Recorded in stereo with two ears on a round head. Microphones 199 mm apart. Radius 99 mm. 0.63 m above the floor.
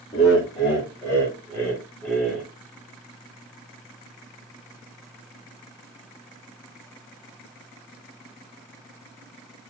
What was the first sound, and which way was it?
Laughter, 20° left (ahead or behind).